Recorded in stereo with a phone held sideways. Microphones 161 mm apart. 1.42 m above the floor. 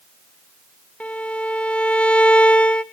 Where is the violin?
5° left (ahead or behind), 1.0 m.